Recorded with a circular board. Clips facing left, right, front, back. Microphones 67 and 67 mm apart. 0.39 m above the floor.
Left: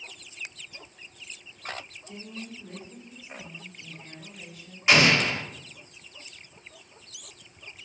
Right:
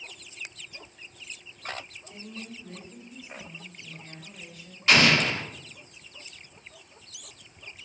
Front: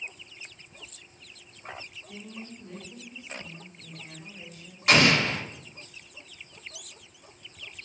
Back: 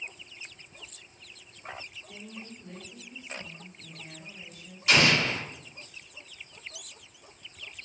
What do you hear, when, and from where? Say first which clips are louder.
2.1 s a woman speaking: left 3 dB, front 4 dB; 105° left, 1.3 m; by 4.8 s 10° left, 1.5 m
4.9 s an explosion: even, front 2 dB; 20° left, 0.6 m